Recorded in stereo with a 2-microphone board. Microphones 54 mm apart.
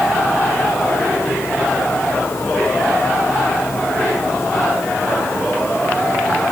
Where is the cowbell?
I don't hear a cowbell.